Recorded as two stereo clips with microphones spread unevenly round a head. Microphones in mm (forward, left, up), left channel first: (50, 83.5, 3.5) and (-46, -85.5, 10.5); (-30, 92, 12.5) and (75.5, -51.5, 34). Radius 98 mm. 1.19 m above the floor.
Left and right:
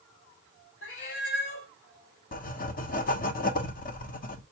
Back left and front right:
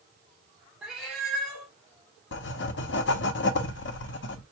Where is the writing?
110° left, 0.6 m.